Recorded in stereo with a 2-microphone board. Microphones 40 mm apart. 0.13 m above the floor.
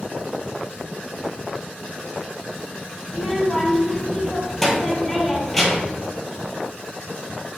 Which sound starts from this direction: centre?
A child speaking, at 3.1 s.